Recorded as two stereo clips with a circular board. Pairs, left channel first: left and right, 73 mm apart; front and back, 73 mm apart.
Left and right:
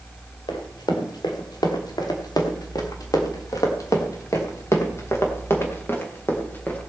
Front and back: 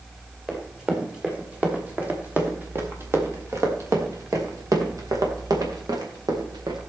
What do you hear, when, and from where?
0.5 s running footsteps: 100° left, 3.5 m; by 6.8 s 155° left, 3.5 m